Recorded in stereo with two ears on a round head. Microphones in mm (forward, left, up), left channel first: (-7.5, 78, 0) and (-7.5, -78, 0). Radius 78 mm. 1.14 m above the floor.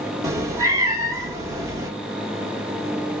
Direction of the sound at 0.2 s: 20° right (ahead or behind).